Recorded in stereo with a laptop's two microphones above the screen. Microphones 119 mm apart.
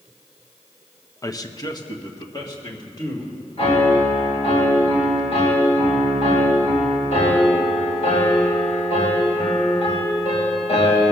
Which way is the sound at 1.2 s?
30° left (ahead or behind).